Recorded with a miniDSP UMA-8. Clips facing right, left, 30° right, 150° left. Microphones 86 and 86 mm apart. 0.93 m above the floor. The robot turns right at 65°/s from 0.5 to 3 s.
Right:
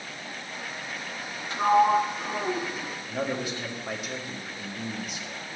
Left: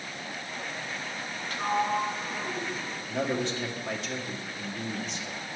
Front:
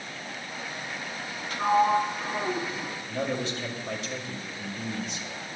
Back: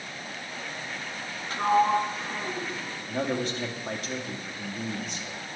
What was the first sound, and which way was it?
A sliding door, 155° right.